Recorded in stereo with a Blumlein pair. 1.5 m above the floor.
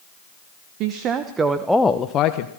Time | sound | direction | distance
0.8 | a woman speaking | 40° right | 1.6 m